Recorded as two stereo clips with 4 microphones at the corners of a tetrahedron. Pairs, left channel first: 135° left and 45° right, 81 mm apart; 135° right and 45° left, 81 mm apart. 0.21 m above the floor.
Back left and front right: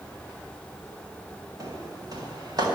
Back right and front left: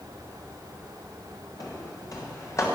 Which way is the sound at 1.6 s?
90° right.